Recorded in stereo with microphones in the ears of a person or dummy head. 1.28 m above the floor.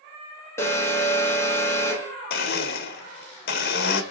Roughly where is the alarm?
Centre.